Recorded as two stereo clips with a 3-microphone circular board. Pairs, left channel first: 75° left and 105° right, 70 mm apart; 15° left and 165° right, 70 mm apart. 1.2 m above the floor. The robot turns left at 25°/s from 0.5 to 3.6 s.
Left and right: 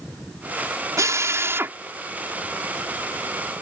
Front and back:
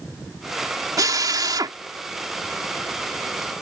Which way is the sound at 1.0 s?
145° right.